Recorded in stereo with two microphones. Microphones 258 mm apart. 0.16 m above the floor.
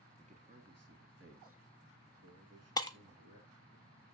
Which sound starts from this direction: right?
A man speaking, at 0.2 s.